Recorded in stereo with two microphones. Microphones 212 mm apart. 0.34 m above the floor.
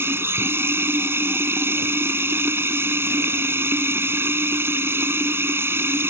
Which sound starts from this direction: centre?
Running water, at 0.0 s.